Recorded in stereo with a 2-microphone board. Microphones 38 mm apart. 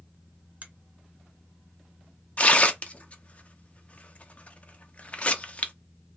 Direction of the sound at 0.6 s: 45° right (ahead or behind).